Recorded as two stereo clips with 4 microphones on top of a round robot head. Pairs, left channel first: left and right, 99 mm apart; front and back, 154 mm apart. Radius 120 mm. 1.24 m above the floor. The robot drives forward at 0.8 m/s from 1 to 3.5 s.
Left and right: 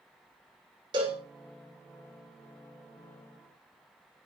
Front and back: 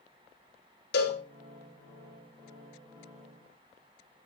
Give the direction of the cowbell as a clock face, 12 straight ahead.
1 o'clock.